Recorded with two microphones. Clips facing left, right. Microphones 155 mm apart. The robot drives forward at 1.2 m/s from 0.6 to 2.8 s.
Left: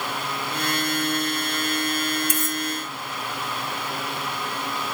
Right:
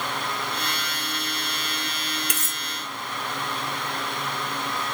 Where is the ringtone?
I don't hear a ringtone.